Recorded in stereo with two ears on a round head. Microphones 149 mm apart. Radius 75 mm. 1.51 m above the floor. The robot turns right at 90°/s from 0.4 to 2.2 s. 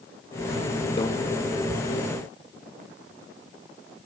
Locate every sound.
1.0 s a microwave: 30° left (ahead or behind), 0.8 m; by 1.1 s 20° left (ahead or behind), 0.8 m